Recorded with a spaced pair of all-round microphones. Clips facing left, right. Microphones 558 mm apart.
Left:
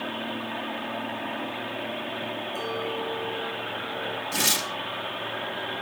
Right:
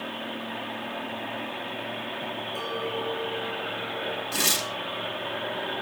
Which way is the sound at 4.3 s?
10° left (ahead or behind).